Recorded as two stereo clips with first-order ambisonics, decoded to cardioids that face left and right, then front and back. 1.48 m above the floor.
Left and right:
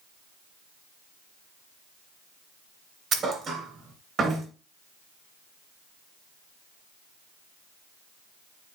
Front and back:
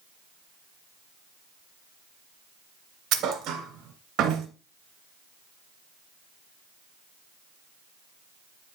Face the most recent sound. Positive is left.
turn(degrees=-150)